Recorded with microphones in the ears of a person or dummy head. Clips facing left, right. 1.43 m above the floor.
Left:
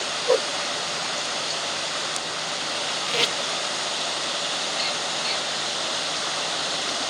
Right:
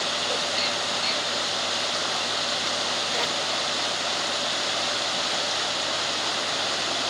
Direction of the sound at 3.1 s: 40° left (ahead or behind).